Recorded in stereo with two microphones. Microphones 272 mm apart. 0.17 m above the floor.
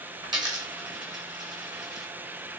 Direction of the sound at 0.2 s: 15° right (ahead or behind).